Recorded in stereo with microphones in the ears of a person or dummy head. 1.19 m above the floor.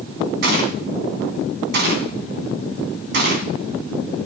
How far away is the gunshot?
About 2.0 m.